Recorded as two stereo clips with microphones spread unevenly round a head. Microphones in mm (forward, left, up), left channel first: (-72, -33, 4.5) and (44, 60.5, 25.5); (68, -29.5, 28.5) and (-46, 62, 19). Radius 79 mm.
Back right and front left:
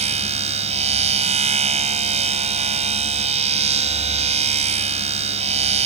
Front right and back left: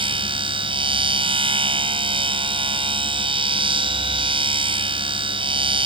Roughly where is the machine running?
Left.